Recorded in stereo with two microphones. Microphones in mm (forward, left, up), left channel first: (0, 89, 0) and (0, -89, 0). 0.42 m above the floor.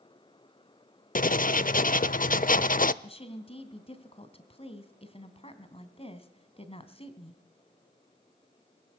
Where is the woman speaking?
35° left (ahead or behind), 3 m.